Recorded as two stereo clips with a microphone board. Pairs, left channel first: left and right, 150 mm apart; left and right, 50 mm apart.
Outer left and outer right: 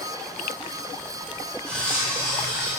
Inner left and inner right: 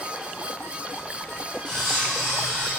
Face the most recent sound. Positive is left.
turn(degrees=10)  # may be behind; listen again after turning